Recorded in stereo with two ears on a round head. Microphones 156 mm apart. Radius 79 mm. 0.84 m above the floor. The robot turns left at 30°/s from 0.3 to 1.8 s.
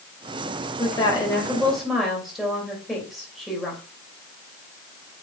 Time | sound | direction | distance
0.8 | a woman speaking | 30° left | 3 m